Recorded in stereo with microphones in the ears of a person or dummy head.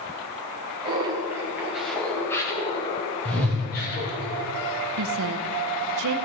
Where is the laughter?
25° right (ahead or behind), 3 m; by 4.2 s 55° left (ahead or behind), 3 m.